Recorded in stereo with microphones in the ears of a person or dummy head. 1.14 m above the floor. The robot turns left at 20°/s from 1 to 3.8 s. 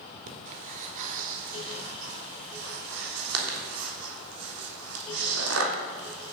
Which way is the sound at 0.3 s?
40° right (ahead or behind).